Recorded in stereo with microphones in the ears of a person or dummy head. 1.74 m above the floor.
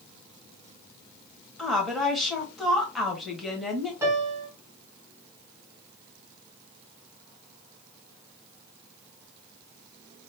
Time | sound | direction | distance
1.6 | a woman speaking | centre (ahead or behind) | 1.3 m
4.0 | a piano | 15° right (ahead or behind) | 1.7 m